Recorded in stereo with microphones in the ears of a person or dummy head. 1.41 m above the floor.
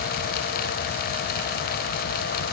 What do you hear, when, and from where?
Only background noise.